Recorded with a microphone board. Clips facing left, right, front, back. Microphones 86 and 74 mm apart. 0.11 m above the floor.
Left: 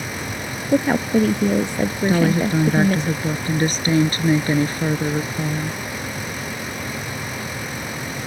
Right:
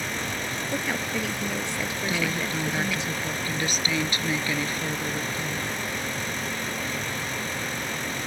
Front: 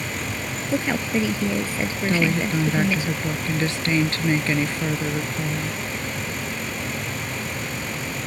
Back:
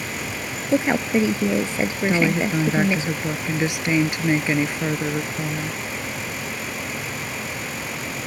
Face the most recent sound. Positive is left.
turn(degrees=110)